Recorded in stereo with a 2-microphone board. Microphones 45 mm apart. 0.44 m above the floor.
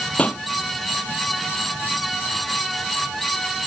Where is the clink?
No clink in this recording.